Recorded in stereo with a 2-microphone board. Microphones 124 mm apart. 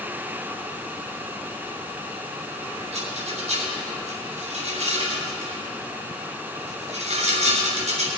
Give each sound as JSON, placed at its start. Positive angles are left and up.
{"t": 2.9, "sound": "a rattle", "side_deg": -75, "distance_m": 4.5}